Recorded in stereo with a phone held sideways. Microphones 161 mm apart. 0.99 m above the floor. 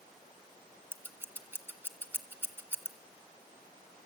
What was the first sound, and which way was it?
Scissors, 15° right (ahead or behind).